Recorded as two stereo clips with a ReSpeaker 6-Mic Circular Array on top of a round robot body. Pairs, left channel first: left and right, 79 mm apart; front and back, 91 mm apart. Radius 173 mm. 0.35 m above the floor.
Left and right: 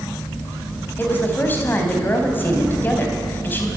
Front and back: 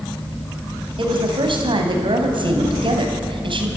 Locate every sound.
1.0 s a woman speaking: 155° left, 3.5 m